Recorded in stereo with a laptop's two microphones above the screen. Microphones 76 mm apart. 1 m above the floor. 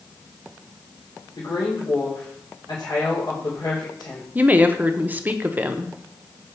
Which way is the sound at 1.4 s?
80° left.